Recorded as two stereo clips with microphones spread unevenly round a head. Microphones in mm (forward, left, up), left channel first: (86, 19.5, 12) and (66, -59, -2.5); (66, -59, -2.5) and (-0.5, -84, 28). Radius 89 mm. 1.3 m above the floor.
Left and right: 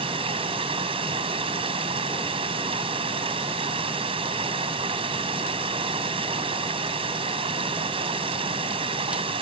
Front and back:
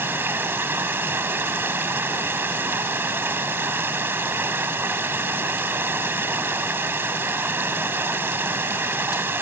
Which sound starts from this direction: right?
Running water, at 0.0 s.